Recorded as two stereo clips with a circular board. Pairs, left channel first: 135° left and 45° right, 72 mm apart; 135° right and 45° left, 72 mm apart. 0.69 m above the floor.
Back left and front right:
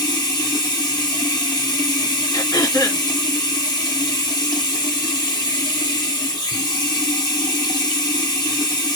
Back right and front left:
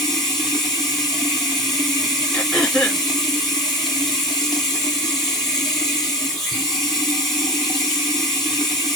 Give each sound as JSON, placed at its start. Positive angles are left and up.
{"t": 0.0, "sound": "running water", "azimuth_deg": 135, "distance_m": 1.9}
{"t": 2.3, "sound": "throat clearing", "azimuth_deg": 145, "distance_m": 3.5}